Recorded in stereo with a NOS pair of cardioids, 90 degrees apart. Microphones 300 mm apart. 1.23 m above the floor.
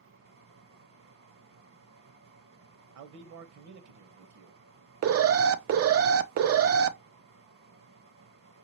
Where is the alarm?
50° right, 0.6 m.